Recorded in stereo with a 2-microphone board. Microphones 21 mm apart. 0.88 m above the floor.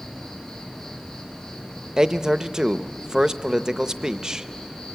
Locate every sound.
0.0 s an insect: 35° left (ahead or behind), 7 m
2.0 s a man speaking: 30° right (ahead or behind), 0.5 m